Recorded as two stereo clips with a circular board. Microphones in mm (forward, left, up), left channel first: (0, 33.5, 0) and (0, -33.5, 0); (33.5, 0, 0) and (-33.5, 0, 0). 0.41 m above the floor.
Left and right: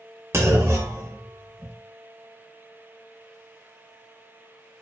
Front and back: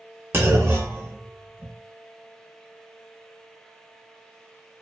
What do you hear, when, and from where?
0.3 s a clunk: 130° right, 0.6 m